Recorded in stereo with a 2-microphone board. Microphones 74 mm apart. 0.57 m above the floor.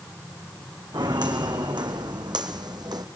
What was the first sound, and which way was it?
Footsteps, 75° right (ahead or behind).